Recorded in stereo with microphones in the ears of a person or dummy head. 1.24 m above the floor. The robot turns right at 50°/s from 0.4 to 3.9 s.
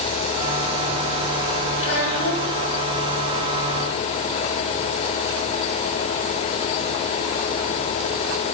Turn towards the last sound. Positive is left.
turn(degrees=140)